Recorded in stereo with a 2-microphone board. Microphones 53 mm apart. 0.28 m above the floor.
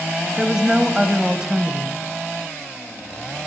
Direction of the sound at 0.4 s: 15° right (ahead or behind).